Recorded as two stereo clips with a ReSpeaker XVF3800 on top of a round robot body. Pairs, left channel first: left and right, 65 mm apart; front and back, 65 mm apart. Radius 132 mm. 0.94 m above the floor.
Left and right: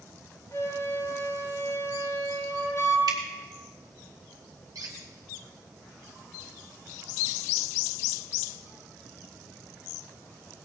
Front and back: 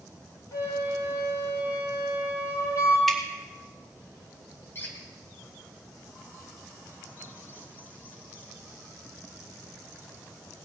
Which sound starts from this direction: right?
Dripping, at 3.1 s.